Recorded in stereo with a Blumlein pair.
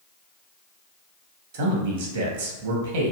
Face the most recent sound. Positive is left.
turn(degrees=-50)